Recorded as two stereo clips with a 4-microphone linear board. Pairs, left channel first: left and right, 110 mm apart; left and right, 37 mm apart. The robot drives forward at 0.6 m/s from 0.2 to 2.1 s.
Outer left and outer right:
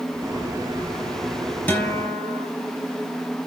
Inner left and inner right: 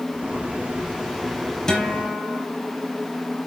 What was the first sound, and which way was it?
A guitar, 15° left (ahead or behind).